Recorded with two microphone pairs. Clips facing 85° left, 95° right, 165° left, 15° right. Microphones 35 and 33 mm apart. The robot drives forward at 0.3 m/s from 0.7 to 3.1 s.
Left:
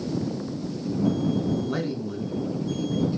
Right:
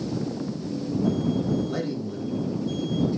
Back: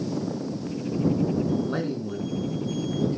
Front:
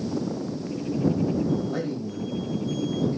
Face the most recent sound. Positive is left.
turn(degrees=150)